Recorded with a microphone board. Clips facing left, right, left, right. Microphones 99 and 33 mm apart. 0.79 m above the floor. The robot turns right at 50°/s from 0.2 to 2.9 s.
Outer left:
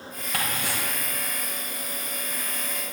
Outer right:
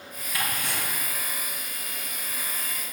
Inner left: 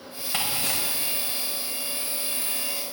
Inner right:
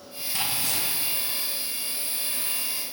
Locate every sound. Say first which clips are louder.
0.3 s ticking: outer left 1 dB, inner left 1 dB; 80° left, 5 m; by 0.8 s 65° left (ahead or behind), 5 m